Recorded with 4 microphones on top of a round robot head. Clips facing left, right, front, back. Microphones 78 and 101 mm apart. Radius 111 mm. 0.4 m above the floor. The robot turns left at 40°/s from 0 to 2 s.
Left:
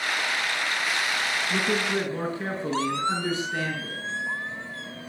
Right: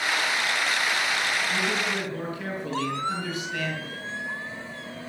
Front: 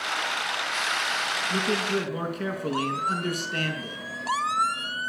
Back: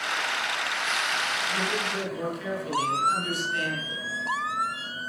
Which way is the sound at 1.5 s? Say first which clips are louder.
Left 1 dB, front 7 dB; 50° left.